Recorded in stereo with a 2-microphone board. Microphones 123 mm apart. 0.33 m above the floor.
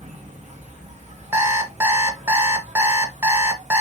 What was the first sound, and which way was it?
An insect, 65° right (ahead or behind).